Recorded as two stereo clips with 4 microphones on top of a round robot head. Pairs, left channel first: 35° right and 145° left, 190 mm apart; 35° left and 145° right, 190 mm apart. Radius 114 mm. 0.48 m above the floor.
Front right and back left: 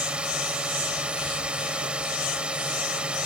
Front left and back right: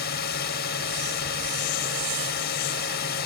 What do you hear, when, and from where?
0.0 s a drone: 60° left